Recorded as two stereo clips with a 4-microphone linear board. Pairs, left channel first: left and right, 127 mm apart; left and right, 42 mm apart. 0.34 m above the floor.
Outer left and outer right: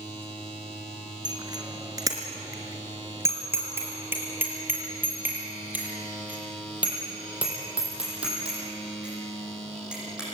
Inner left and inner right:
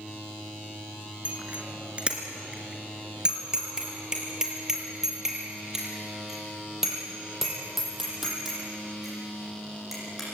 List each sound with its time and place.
1.2 s a bicycle bell: 35° right (ahead or behind), 3 m; by 10.3 s 5° right (ahead or behind), 10.5 m